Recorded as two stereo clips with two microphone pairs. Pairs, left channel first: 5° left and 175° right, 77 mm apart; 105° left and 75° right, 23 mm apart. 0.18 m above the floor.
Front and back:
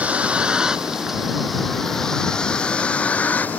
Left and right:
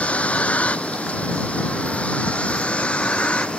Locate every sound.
0.0 s a vehicle: 115° left; by 3.6 s 75° left